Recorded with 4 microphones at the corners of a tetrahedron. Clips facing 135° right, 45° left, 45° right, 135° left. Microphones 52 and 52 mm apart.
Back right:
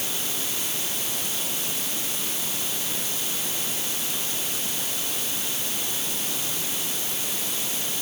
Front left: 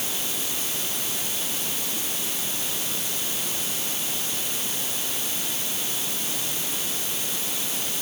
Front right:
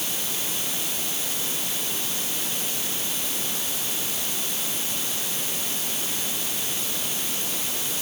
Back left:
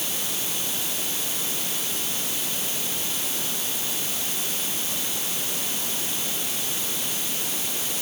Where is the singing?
I don't hear singing.